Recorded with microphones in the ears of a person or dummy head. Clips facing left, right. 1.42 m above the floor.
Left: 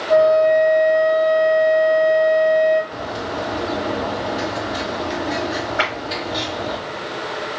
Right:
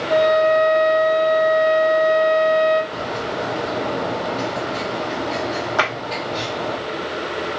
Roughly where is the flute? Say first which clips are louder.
Left 3 dB; centre.